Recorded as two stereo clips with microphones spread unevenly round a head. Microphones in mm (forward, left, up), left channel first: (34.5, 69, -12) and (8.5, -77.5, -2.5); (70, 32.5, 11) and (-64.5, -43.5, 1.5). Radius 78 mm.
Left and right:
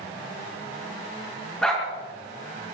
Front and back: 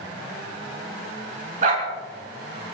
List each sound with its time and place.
1.6 s a dog barking: 165° left, 5 m